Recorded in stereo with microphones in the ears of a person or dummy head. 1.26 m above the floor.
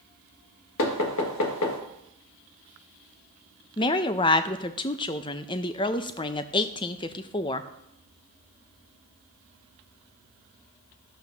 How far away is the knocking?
About 1.6 m.